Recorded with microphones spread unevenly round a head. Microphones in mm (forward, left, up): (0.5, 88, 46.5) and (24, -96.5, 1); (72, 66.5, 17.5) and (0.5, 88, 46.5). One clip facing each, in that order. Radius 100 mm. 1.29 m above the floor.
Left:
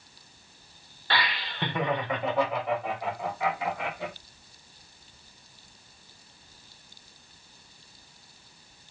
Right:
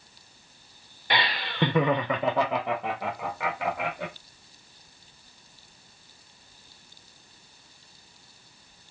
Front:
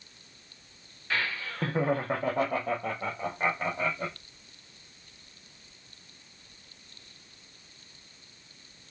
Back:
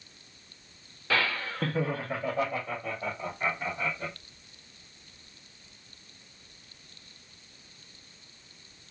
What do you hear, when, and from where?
1.1 s laughter: 160° right, 0.6 m; by 4.1 s 50° right, 3 m